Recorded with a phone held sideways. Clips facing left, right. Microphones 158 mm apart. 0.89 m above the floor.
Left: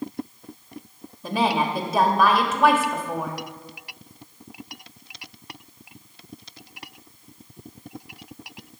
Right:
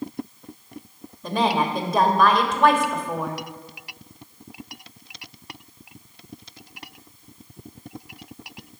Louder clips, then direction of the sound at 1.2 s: Right 1 dB; 5° left (ahead or behind).